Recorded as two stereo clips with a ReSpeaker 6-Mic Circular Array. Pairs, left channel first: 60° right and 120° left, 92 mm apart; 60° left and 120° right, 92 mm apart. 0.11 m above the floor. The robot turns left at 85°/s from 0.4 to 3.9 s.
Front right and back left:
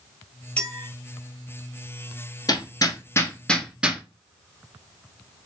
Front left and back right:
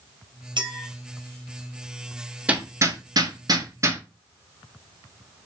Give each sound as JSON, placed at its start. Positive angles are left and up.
{"t": 0.6, "sound": "a clink", "azimuth_deg": -135, "distance_m": 1.5}
{"t": 2.5, "sound": "hammering", "azimuth_deg": -50, "distance_m": 0.9}